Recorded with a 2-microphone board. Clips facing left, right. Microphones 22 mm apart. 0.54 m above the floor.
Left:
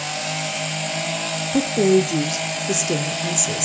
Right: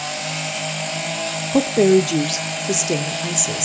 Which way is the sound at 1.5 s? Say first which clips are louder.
Right 3 dB; 40° right (ahead or behind).